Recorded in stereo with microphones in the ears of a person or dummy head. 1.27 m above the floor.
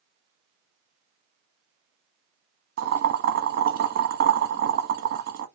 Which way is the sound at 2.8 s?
55° right (ahead or behind).